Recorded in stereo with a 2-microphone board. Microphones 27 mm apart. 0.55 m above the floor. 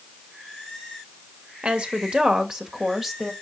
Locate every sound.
1.6 s a woman speaking: 50° right (ahead or behind), 1.9 m; by 3.3 s 10° right (ahead or behind), 2.5 m